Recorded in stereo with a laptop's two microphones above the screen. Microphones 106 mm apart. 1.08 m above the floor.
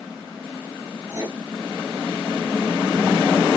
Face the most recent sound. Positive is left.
turn(degrees=-30)  # may be behind; listen again after turning